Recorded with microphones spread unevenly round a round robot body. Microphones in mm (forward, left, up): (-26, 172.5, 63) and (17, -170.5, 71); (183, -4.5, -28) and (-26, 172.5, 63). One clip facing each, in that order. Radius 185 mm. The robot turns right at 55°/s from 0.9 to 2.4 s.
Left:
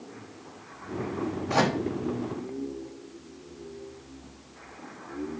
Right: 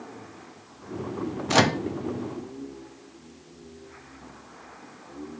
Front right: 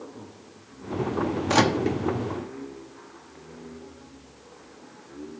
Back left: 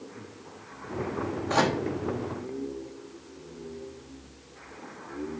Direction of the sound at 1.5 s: 65° right.